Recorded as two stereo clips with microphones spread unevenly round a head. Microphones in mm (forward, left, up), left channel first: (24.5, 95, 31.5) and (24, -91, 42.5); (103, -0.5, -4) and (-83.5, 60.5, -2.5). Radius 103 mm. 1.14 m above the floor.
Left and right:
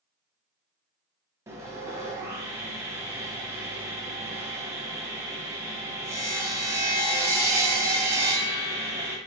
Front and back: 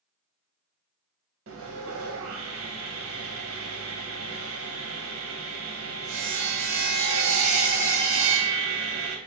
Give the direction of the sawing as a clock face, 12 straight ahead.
6 o'clock.